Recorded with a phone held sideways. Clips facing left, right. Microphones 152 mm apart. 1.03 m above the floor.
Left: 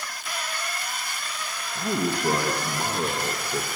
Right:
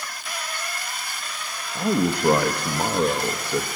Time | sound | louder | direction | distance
1.8 | a man speaking | right 5 dB | 70° right (ahead or behind) | 1.2 m